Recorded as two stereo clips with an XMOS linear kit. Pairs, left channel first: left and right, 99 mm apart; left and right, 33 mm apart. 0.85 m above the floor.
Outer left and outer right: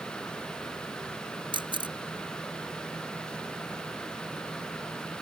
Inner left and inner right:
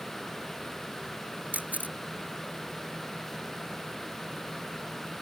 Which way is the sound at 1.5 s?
50° right (ahead or behind).